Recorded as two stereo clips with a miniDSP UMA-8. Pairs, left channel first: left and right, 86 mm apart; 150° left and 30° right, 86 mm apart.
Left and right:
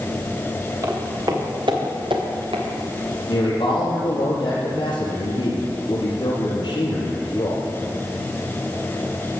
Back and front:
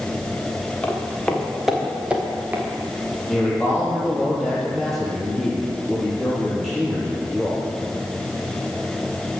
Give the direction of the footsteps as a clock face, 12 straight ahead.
5 o'clock.